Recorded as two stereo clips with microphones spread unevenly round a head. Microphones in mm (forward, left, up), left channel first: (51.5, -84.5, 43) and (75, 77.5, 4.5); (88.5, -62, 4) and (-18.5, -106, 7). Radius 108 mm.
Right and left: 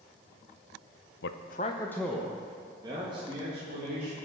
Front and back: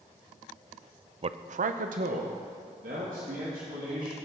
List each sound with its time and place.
1.2 s a man speaking: 115° right, 0.6 m; by 4.2 s 150° left, 2.5 m